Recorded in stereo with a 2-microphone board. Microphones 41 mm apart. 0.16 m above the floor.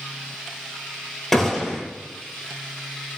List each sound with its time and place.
1.3 s a gunshot: 5° left (ahead or behind), 1.2 m